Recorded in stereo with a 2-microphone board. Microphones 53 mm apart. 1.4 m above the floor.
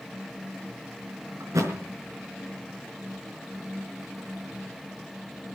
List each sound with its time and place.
1.4 s a thud: 75° right (ahead or behind), 4.5 m